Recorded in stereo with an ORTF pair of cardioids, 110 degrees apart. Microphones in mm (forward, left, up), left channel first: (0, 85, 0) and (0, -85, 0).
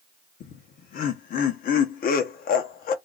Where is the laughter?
60° left, 1.0 m.